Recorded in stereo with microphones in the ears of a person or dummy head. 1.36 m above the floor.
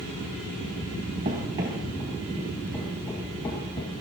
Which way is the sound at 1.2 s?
30° right (ahead or behind).